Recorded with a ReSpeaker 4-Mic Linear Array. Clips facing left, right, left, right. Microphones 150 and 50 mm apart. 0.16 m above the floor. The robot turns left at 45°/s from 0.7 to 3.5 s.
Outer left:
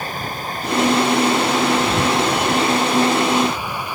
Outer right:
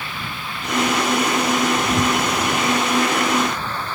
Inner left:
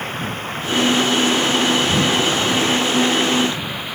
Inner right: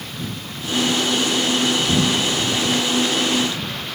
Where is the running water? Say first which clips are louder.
Outer left 5 dB, inner left 6 dB; 140° left; by 4.0 s 10° left.